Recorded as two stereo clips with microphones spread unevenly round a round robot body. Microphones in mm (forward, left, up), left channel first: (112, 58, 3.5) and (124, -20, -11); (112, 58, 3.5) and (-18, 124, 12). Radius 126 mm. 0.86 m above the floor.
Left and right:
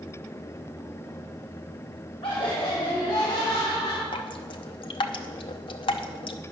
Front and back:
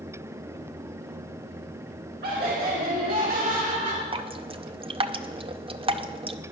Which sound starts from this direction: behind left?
Laughter, at 2.2 s.